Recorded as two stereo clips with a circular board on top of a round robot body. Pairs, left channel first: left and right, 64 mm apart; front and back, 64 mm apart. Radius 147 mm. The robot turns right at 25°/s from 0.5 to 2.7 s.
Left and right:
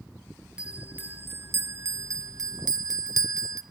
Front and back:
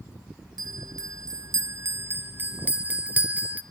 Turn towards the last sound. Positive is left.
turn(degrees=-115)